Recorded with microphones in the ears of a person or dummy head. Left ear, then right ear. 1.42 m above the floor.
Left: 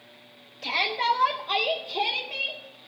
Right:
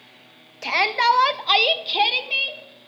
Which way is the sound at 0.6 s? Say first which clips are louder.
Right 6 dB; 40° right (ahead or behind).